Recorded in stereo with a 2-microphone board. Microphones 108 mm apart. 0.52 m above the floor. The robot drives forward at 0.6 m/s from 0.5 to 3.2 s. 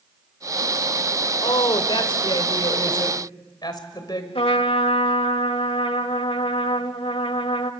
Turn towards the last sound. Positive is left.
turn(degrees=65)  # may be behind; listen again after turning